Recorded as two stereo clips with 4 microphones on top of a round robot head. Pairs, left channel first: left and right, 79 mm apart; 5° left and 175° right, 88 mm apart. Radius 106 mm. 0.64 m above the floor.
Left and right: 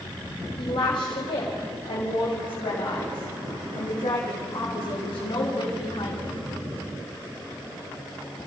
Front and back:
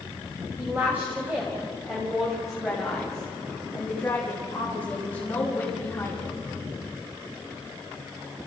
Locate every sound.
0.6 s a woman speaking: 120° left, 3 m; by 6.4 s 75° left, 5.5 m